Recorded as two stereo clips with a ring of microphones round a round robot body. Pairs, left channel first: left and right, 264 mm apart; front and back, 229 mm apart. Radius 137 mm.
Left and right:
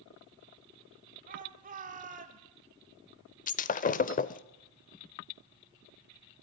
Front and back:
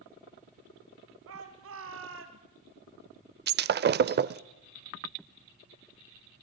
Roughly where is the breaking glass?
Behind left.